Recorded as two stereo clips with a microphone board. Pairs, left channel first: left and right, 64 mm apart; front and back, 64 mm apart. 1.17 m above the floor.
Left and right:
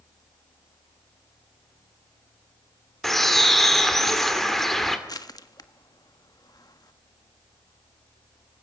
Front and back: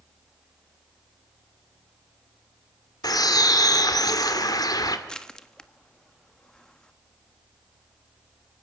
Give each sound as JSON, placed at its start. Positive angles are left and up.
{"t": 3.0, "sound": "a bird", "azimuth_deg": 5, "distance_m": 2.5}
{"t": 5.1, "sound": "crushing", "azimuth_deg": 80, "distance_m": 1.3}